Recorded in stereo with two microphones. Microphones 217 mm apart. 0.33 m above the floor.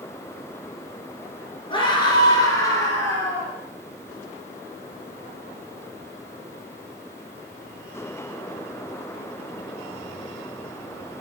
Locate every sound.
1.7 s a scream: 20° left (ahead or behind), 5 m; by 3.6 s 10° left (ahead or behind), 6.5 m